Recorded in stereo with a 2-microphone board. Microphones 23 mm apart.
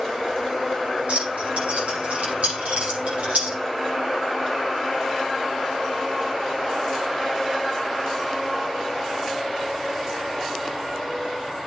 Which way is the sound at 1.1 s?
80° right.